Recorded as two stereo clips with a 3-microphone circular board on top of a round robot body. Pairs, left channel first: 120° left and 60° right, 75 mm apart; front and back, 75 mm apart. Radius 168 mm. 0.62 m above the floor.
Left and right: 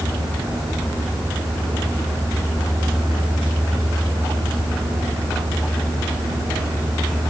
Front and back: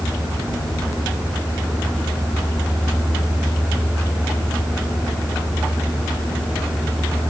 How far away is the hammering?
I don't hear hammering.